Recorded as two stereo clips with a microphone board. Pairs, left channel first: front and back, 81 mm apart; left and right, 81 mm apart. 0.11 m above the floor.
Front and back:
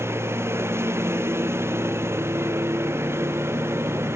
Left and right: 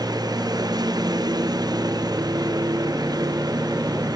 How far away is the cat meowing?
I don't hear a cat meowing.